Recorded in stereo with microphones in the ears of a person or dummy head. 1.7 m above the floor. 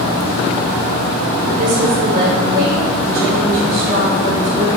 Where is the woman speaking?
50° right (ahead or behind), 3 m.